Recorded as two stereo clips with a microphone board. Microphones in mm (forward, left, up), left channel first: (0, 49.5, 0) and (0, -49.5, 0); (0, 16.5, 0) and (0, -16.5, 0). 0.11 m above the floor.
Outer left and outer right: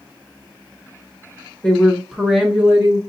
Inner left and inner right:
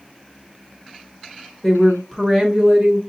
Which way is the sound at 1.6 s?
10° left (ahead or behind).